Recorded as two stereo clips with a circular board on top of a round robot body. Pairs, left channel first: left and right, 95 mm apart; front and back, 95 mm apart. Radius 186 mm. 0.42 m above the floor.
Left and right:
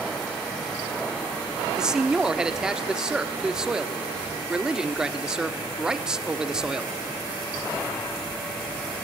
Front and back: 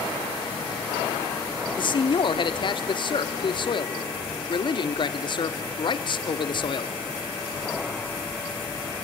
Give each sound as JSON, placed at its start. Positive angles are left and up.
{"t": 1.7, "sound": "a man speaking", "azimuth_deg": -10, "distance_m": 1.3}